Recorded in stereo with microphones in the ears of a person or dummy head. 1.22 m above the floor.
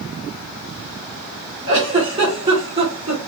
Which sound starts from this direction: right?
A giggle, at 1.7 s.